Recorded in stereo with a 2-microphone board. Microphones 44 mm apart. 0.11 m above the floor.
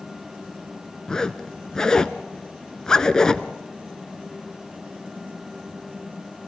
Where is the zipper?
15° left (ahead or behind), 0.9 m.